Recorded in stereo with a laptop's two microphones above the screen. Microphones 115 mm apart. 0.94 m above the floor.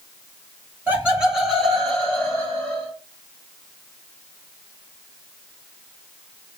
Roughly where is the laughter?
Centre.